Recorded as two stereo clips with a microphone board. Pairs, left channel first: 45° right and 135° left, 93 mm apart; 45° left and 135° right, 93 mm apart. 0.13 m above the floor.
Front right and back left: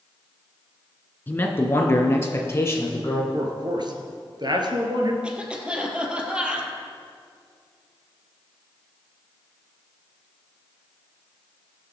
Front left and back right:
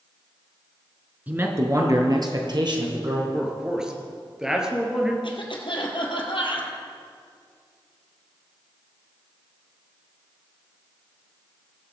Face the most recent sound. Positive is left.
turn(degrees=60)